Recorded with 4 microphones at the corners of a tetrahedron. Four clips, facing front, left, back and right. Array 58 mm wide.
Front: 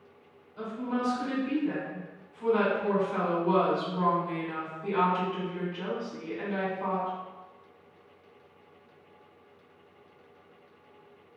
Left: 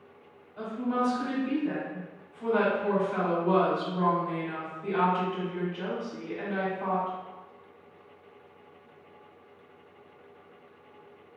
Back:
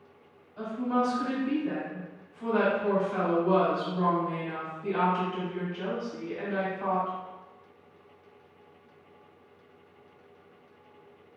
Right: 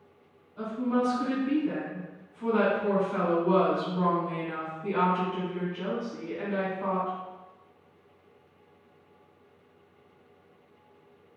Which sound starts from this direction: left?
A woman speaking, at 0.6 s.